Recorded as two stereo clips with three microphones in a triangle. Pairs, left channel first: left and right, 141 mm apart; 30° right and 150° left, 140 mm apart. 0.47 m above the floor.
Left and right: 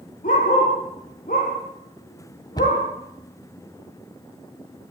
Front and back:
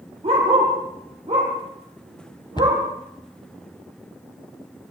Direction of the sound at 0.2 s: 105° left.